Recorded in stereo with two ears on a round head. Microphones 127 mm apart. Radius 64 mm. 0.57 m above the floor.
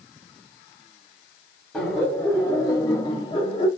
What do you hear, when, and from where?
1.7 s laughter: 5° left (ahead or behind), 1.1 m; by 3.7 s 35° left (ahead or behind), 0.8 m